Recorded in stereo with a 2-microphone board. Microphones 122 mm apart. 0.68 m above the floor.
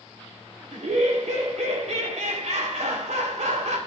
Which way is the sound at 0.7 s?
75° right (ahead or behind).